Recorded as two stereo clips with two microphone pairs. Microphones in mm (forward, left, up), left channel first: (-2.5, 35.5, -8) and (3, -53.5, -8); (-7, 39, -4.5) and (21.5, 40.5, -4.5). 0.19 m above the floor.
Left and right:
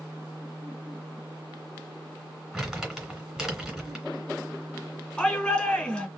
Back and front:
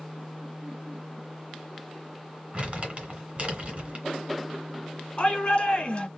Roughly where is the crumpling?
Ahead.